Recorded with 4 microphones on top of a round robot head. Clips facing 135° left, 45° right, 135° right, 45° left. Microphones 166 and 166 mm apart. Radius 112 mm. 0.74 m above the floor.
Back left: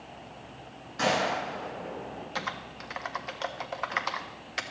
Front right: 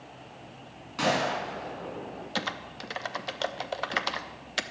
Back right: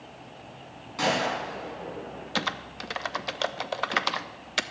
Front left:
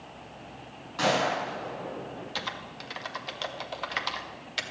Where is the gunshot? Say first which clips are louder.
Even, front left 1 dB; 60° right, 6.5 m.